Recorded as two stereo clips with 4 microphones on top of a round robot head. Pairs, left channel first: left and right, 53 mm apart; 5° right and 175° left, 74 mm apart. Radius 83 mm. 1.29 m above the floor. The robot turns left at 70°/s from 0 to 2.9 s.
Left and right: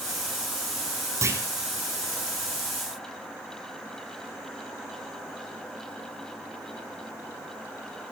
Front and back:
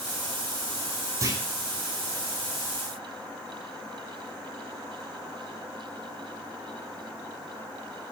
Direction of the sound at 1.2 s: 125° right.